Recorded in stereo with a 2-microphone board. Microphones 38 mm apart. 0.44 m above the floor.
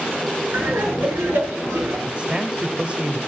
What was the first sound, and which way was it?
Laughter, 85° right.